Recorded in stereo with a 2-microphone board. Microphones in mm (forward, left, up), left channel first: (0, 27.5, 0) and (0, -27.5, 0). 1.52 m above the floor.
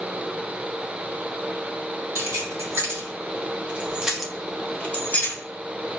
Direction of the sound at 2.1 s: 65° right (ahead or behind).